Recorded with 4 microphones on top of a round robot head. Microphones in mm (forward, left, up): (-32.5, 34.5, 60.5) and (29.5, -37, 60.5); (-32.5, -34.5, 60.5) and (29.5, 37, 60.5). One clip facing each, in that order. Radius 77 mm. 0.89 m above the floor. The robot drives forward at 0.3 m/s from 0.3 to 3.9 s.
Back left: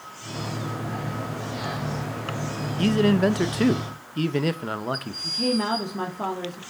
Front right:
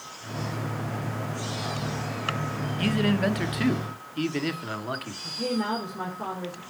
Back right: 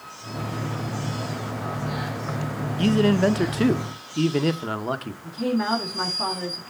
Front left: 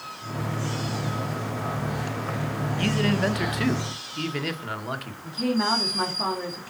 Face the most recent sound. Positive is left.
turn(degrees=140)